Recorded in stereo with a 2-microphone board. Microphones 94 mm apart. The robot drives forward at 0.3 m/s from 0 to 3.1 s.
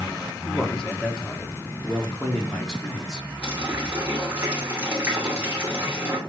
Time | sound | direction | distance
0.5 | a man speaking | 10° left (ahead or behind) | 1.3 m
3.4 | a running tap | 25° right (ahead or behind) | 2.5 m